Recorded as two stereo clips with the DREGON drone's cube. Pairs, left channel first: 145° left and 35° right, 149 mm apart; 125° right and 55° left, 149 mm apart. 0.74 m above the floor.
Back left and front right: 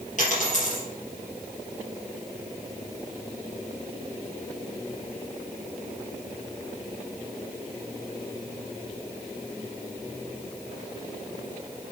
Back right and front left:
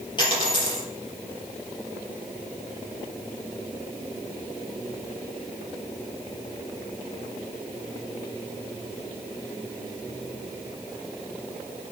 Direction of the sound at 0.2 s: Straight behind.